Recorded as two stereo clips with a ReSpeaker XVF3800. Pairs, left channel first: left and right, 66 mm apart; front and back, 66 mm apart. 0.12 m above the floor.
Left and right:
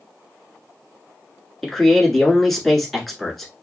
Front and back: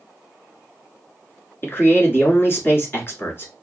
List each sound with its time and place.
1.6 s a man speaking: 5° left, 1.3 m